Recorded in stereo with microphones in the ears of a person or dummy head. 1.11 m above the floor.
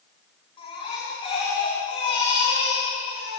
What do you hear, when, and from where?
0.6 s a baby crying: 30° left (ahead or behind), 9 m